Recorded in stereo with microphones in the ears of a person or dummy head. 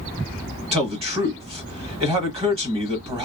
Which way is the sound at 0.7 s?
25° right (ahead or behind).